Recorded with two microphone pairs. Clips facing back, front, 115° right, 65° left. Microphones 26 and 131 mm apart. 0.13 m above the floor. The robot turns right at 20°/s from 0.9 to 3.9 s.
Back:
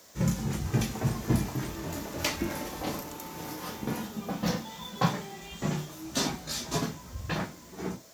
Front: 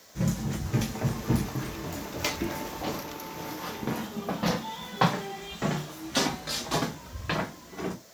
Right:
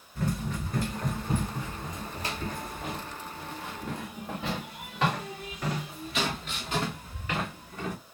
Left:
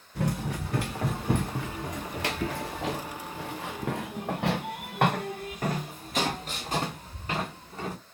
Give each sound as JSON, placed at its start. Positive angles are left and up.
{"t": 0.1, "sound": "running footsteps", "azimuth_deg": 80, "distance_m": 1.9}